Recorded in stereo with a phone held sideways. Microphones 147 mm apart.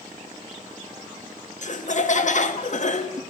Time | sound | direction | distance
1.6 | laughter | 55° left (ahead or behind) | 1.0 m